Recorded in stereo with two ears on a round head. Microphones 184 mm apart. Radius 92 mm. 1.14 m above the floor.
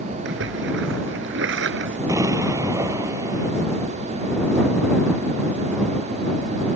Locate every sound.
0.2 s a splash: 65° right (ahead or behind)
2.1 s an explosion: 15° right (ahead or behind)